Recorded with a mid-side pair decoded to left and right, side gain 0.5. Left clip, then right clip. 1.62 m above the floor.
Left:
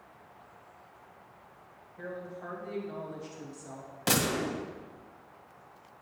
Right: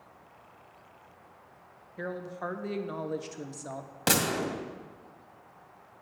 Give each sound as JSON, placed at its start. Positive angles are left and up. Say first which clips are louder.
{"t": 2.0, "sound": "a woman speaking", "louder": "right 4 dB", "azimuth_deg": -60, "distance_m": 1.0}
{"t": 4.1, "sound": "a gunshot", "louder": "right 1 dB", "azimuth_deg": -35, "distance_m": 2.0}